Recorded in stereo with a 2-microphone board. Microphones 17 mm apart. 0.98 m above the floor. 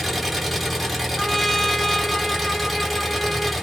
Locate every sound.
0.0 s an engine running: centre (ahead or behind), 5.5 m
1.2 s a trumpet: 15° left (ahead or behind), 1.0 m